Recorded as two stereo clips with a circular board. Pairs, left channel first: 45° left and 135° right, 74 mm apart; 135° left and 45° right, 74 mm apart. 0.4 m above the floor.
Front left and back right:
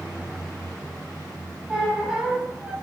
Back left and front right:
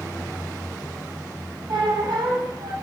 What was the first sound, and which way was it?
A squeak, 60° right.